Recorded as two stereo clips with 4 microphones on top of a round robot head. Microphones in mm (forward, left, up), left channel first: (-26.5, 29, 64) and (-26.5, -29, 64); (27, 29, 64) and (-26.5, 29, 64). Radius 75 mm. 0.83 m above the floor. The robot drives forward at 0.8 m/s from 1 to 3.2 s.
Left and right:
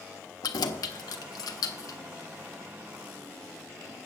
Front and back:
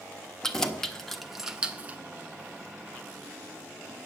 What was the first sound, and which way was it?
Keys jangling, 80° left.